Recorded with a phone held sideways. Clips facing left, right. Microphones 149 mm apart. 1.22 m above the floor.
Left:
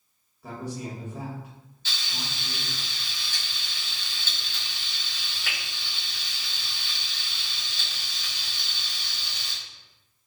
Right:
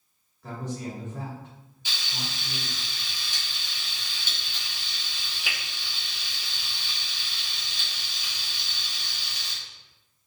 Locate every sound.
0.4 s a man speaking: 10° left (ahead or behind), 1.4 m
1.9 s frying: 15° right (ahead or behind), 1.1 m